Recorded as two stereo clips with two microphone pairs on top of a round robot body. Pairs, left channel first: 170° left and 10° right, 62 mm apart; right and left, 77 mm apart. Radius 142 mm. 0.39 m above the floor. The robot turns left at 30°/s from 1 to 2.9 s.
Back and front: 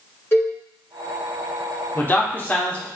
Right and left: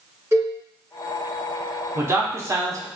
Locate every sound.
0.3 s a cowbell: 140° left, 1.8 m
1.9 s a man speaking: 145° left, 1.2 m; by 2.9 s 115° left, 1.2 m